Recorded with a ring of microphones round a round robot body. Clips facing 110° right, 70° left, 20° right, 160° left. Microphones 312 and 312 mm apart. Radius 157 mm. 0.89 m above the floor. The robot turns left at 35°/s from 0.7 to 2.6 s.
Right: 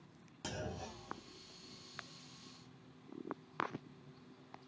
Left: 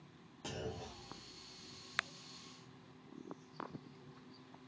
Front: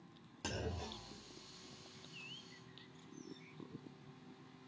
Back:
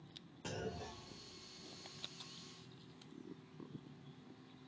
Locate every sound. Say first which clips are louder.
0.4 s a clunk: left 1 dB, front 1 dB; 50° right, 1.1 m; by 1.8 s 90° right, 1.1 m